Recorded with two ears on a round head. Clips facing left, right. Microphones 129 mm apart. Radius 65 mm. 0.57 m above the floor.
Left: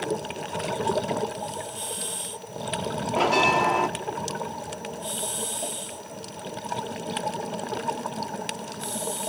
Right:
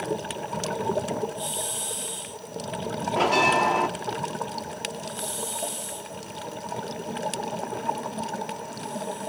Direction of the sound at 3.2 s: Centre (ahead or behind).